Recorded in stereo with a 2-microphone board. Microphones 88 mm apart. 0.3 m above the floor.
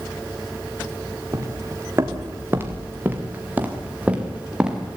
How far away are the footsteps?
About 3.5 m.